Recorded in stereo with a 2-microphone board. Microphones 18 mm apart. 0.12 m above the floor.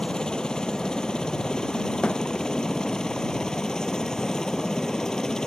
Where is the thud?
80° left.